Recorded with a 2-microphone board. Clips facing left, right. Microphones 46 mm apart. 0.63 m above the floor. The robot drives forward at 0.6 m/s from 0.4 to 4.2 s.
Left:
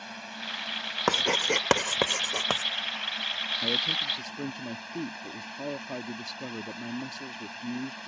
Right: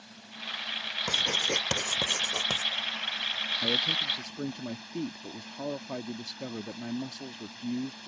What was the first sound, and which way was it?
A drone, 70° left (ahead or behind).